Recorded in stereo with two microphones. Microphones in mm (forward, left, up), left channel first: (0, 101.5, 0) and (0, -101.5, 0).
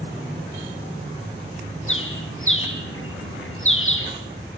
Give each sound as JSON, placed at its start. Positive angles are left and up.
{"t": 1.9, "sound": "a bird", "side_deg": 85, "distance_m": 5.0}